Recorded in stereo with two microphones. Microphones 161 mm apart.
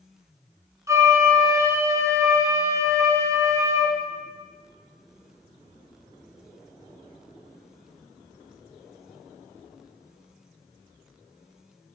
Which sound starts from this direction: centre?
A flute, at 0.9 s.